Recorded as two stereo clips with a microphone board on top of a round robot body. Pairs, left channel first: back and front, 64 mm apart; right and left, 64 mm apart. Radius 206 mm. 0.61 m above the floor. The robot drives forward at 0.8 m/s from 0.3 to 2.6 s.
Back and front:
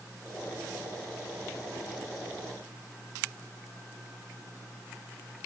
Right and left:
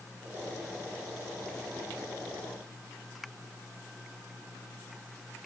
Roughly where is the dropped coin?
No dropped coin in this recording.